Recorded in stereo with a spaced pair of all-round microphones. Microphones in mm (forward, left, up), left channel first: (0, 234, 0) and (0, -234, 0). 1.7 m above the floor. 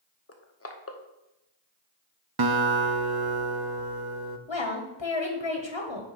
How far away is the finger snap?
No finger snap in this recording.